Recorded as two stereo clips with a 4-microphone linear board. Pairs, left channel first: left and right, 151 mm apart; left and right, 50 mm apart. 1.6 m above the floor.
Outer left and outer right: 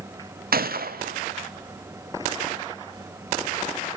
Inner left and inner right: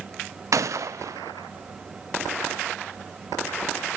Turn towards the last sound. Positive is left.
turn(degrees=-80)